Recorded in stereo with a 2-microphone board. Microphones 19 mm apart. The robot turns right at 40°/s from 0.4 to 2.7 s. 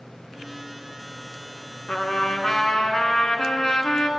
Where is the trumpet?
70° left, 1.1 m; by 4.1 s 105° left, 1.1 m.